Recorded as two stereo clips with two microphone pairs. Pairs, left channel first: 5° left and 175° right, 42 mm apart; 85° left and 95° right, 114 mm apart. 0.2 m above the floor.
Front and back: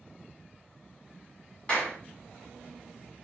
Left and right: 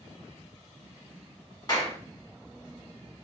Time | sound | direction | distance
1.7 | a clap | 55° left | 1.2 m